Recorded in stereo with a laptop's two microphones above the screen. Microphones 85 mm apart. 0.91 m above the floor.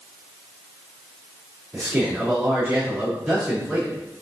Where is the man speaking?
5° right (ahead or behind), 3.5 m.